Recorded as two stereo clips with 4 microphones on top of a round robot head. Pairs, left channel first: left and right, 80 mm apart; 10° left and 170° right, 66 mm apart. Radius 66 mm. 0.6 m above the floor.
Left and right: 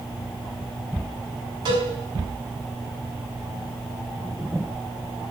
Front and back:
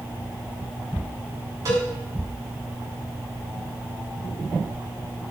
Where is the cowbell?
125° right, 5.5 m.